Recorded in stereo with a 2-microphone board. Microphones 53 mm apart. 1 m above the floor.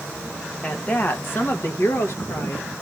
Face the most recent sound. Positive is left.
turn(degrees=65)  # may be behind; listen again after turning